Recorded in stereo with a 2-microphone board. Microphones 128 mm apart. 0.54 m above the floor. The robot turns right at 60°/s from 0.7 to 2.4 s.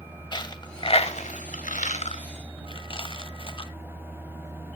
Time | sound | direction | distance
0.3 | a dropped coin | 35° left (ahead or behind) | 0.9 m